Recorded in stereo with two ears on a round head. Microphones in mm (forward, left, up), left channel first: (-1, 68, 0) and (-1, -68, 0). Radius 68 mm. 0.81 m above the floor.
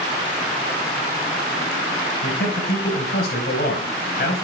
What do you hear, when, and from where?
2.2 s a man speaking: 70° left (ahead or behind), 4.5 m